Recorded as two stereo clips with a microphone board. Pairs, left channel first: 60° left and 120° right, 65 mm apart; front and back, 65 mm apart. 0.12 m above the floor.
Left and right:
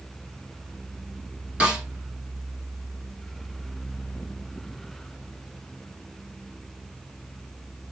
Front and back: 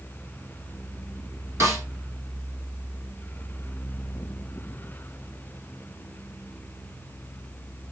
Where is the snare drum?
175° left, 1.5 m.